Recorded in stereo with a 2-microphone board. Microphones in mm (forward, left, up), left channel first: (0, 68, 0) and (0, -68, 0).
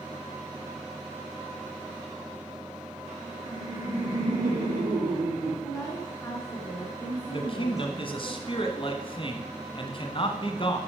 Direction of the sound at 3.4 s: 65° right (ahead or behind).